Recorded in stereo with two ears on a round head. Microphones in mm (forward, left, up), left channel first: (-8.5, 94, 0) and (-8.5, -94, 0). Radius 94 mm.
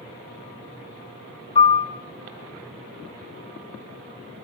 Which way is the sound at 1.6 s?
25° left (ahead or behind).